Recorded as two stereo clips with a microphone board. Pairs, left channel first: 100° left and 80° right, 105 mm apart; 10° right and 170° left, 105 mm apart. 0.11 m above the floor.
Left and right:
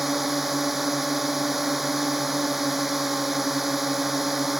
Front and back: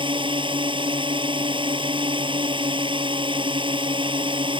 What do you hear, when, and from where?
0.0 s a drone: 170° right